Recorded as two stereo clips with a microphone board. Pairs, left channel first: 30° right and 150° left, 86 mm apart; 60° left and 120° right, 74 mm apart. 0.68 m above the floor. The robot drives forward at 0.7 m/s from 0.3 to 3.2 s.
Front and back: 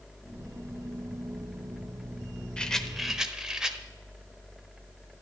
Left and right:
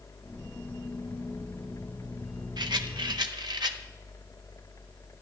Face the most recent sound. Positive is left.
turn(degrees=-125)